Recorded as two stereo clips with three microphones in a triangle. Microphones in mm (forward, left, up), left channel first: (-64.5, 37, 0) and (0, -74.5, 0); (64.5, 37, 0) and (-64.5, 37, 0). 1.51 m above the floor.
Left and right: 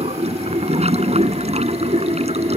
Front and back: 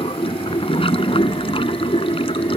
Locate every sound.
0.0 s running water: 40° right